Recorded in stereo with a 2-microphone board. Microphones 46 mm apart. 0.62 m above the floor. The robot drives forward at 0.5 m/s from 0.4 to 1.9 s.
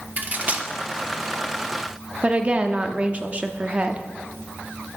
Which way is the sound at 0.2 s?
35° right (ahead or behind).